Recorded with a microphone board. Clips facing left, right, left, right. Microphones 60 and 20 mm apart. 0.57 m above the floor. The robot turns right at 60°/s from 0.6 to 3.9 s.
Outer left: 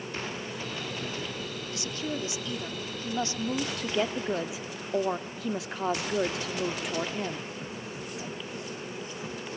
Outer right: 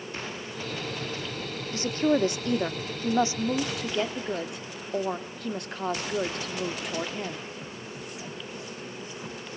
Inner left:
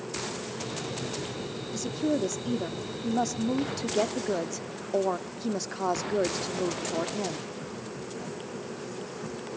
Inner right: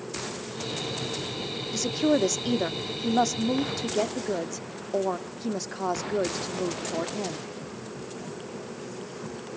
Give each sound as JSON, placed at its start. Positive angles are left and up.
{"t": 1.7, "sound": "a woman speaking", "azimuth_deg": -125, "distance_m": 0.8}